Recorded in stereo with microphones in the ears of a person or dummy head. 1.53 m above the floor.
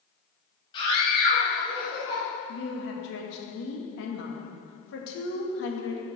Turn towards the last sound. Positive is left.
turn(degrees=75)  # may be behind; listen again after turning